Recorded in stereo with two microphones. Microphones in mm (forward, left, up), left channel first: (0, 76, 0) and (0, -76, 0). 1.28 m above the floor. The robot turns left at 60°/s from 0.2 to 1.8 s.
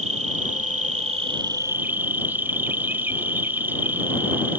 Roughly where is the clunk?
No clunk in this recording.